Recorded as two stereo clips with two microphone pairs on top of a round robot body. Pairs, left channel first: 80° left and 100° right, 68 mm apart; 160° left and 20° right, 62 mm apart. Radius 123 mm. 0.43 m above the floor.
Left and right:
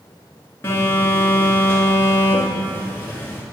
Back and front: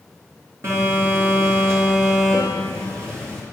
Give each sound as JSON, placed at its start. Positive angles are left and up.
{"t": 0.6, "sound": "a phone buzzing", "azimuth_deg": 20, "distance_m": 4.0}